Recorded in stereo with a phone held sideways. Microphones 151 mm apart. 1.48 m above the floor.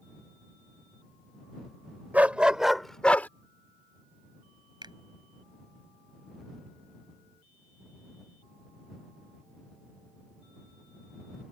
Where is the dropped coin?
No dropped coin in this recording.